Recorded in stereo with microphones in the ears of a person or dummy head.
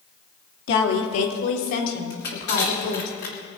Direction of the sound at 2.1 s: 55° left (ahead or behind).